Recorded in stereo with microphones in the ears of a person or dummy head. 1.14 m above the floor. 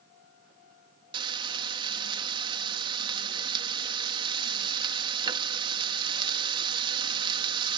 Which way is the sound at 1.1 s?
30° right (ahead or behind).